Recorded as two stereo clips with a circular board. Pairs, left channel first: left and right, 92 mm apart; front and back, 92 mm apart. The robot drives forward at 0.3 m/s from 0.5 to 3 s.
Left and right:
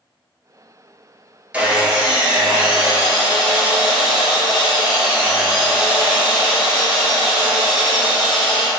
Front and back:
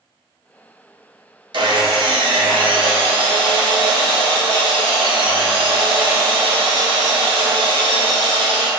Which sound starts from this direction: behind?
Sawing, at 1.5 s.